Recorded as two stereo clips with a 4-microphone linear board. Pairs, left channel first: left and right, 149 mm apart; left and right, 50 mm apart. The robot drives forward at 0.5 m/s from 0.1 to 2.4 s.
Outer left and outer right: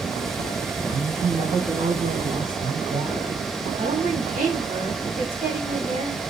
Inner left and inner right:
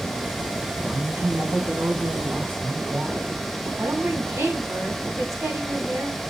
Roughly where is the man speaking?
Right.